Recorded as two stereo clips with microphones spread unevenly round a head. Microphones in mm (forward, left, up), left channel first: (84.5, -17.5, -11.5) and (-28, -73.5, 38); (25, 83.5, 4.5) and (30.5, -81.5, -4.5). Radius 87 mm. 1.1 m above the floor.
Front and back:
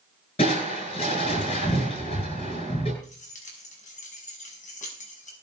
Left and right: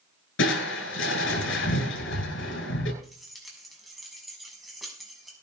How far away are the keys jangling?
About 5.5 m.